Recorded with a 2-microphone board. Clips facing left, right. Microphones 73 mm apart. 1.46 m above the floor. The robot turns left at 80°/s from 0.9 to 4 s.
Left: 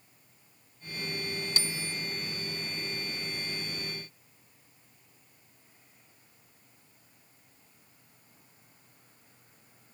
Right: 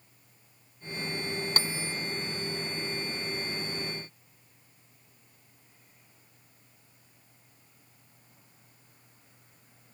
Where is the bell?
135° right; by 1.9 s 170° right.